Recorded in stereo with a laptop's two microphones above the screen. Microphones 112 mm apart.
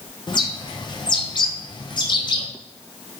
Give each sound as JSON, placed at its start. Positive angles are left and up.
{"t": 0.3, "sound": "a bird", "side_deg": 40, "distance_m": 0.5}